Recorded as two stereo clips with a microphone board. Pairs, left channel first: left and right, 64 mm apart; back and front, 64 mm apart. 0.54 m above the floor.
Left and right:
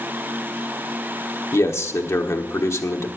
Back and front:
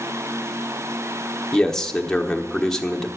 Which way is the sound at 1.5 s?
100° left.